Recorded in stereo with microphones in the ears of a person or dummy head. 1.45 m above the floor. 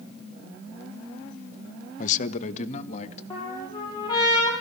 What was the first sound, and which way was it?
A man speaking, 45° left (ahead or behind).